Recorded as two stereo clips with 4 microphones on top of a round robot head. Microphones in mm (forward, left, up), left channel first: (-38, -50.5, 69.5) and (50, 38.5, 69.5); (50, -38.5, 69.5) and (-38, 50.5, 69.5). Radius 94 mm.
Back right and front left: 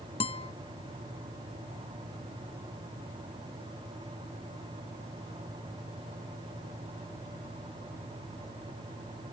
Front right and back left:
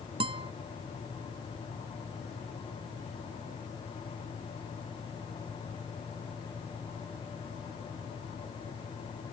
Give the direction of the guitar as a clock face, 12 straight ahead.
6 o'clock.